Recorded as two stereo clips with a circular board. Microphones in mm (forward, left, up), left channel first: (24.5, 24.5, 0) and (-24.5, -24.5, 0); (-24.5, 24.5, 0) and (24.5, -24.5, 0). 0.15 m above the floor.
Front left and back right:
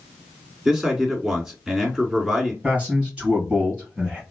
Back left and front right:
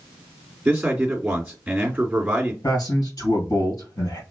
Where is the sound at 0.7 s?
80° right, 1.7 m.